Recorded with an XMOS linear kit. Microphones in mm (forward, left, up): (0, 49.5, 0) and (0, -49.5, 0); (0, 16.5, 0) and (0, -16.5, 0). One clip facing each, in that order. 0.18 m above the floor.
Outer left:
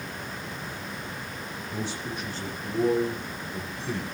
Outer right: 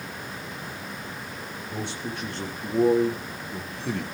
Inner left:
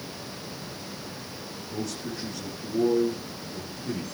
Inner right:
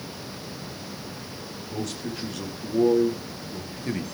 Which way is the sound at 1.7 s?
70° right (ahead or behind).